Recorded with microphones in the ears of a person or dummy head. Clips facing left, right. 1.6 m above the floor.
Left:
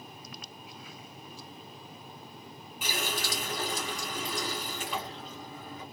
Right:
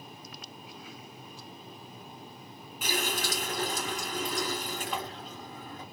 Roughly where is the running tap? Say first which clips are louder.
Right 2 dB; right.